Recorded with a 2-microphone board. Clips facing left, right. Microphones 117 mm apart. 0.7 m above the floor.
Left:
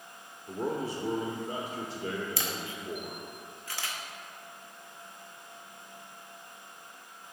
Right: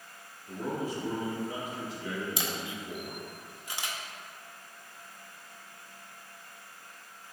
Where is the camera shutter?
20° right (ahead or behind), 0.8 m.